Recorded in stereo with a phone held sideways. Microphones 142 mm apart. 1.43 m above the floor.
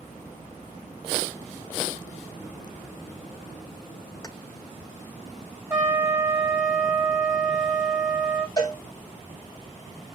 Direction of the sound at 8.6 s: 30° left (ahead or behind).